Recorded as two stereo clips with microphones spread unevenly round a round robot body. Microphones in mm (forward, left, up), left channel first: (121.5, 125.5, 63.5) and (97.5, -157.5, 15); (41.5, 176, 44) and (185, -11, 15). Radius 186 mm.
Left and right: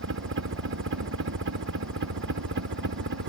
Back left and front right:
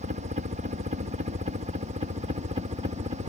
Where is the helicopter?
105° right; by 3.3 s 115° right.